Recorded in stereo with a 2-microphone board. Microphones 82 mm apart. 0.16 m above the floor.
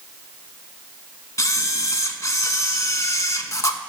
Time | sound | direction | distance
1.4 | a camera shutter | 40° left (ahead or behind) | 0.5 m